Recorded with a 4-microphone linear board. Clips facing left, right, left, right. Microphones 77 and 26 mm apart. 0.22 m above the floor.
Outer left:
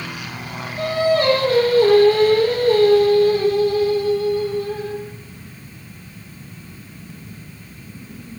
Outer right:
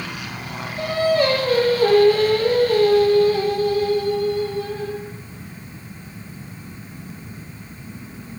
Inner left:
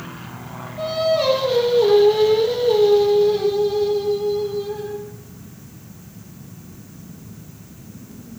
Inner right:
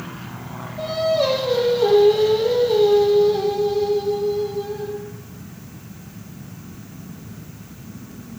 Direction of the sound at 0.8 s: 35° left (ahead or behind).